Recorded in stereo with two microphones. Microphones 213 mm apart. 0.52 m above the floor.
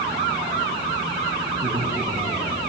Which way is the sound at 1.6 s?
50° right (ahead or behind).